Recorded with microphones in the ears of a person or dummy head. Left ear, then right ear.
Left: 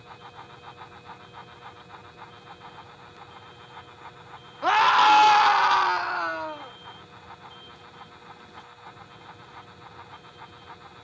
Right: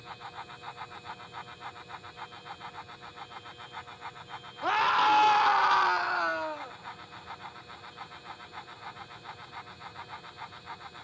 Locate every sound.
4.6 s a scream: 20° left (ahead or behind); by 6.8 s 15° right (ahead or behind)